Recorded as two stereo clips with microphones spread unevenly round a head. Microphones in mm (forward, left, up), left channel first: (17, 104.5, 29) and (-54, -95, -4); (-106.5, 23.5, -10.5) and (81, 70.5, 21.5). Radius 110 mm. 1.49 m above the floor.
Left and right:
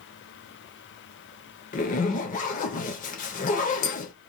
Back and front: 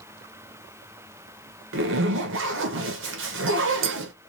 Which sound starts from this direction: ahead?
A zipper, at 1.7 s.